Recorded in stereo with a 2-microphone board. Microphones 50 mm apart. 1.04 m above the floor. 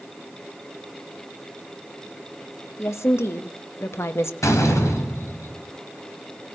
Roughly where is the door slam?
Left.